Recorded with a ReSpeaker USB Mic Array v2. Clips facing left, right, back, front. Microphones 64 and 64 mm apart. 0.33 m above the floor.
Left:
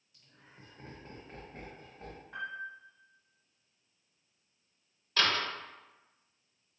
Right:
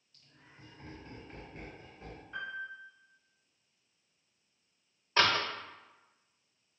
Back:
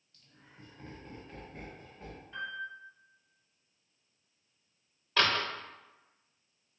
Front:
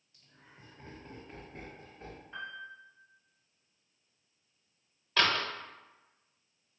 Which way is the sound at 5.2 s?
100° right.